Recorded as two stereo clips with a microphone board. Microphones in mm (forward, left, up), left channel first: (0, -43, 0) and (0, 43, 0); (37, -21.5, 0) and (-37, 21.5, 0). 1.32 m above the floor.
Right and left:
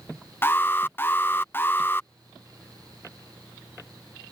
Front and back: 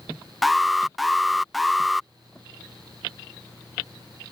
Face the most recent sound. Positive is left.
turn(degrees=-120)